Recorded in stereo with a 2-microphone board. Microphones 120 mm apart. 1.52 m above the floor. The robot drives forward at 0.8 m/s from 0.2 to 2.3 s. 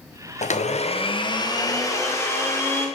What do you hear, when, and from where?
0.4 s a blender: 75° left (ahead or behind), 0.6 m; by 2.9 s 20° left (ahead or behind), 1.6 m